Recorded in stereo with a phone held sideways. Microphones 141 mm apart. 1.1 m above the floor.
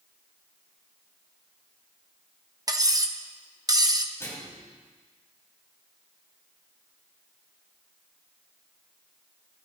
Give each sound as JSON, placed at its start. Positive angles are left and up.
{"t": 2.7, "sound": "cutlery clinking", "side_deg": -30, "distance_m": 0.8}
{"t": 4.2, "sound": "a microwave", "side_deg": 20, "distance_m": 6.0}